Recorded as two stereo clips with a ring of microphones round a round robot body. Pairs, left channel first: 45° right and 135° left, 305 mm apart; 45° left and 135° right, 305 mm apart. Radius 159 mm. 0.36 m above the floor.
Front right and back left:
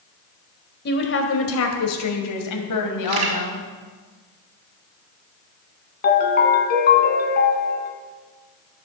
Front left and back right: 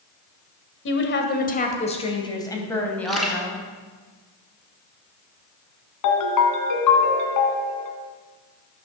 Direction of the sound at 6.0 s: 15° left.